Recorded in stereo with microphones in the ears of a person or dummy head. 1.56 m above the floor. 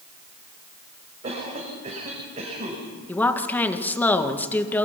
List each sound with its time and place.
1.2 s a cough: 35° right (ahead or behind), 6 m
3.1 s a woman speaking: 20° left (ahead or behind), 1.8 m